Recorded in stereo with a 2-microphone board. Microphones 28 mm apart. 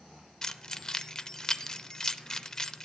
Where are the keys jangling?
25° left (ahead or behind), 0.6 m.